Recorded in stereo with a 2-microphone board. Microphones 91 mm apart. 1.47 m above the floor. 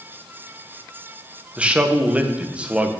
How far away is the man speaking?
About 1.0 m.